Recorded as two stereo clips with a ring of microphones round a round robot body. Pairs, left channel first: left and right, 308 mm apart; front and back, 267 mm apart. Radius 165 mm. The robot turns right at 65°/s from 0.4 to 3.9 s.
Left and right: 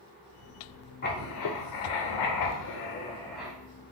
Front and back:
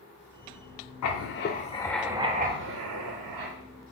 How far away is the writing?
About 0.6 m.